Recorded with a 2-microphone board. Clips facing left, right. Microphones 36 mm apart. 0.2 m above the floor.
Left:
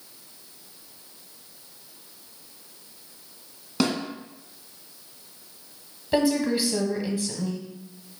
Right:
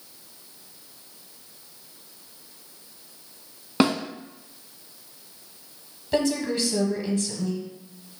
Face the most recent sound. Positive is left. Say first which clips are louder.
# left 2 dB
turn(degrees=15)  # may be behind; listen again after turning